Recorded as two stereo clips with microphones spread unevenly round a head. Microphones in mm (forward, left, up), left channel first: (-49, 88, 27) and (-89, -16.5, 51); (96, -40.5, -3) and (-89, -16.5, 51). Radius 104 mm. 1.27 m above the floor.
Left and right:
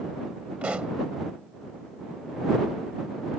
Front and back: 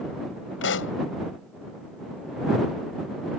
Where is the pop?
30° right.